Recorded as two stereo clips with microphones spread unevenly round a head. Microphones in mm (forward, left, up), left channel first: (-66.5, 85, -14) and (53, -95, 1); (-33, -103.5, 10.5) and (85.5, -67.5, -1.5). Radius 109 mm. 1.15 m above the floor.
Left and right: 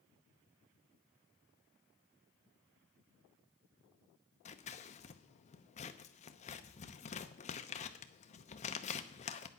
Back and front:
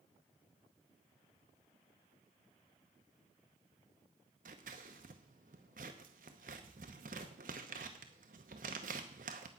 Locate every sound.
4.5 s scissors: 60° left, 0.7 m